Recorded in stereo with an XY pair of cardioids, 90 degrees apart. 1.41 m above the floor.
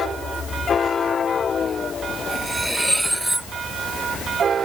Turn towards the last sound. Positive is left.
turn(degrees=-5)